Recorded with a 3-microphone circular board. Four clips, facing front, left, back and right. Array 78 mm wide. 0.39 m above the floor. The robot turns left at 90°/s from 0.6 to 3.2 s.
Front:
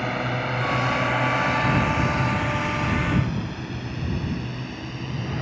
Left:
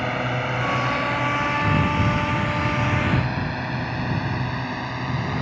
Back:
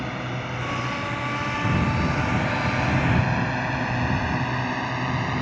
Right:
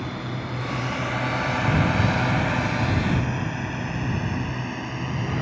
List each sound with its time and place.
0.0 s a drone: 60° left; by 5.4 s 160° left